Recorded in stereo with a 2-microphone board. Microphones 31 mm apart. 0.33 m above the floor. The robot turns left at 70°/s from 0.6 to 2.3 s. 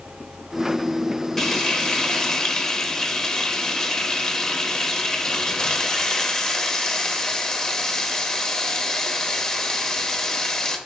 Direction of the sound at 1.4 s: 10° left (ahead or behind).